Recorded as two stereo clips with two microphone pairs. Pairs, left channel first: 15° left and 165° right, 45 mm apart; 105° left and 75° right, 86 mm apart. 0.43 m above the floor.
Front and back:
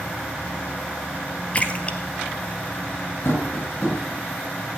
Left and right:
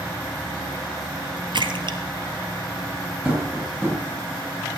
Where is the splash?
45° right, 1.7 m.